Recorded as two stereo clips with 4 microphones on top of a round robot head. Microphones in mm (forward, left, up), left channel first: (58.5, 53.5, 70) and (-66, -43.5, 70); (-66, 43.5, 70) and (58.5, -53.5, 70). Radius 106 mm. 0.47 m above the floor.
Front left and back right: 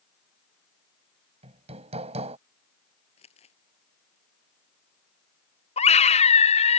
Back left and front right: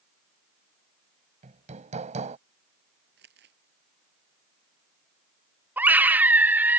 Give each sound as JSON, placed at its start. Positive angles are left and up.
{"t": 1.4, "sound": "hammering", "azimuth_deg": -90}
{"t": 3.2, "sound": "crumpling", "azimuth_deg": -15}
{"t": 5.8, "sound": "a scream", "azimuth_deg": 35}